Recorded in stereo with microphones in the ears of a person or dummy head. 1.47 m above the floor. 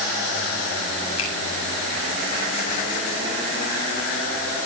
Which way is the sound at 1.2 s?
80° left.